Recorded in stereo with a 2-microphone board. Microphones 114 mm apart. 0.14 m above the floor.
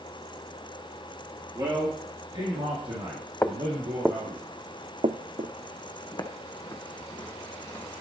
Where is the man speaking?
35° right (ahead or behind), 2 m; by 4.4 s 50° right (ahead or behind), 4.5 m.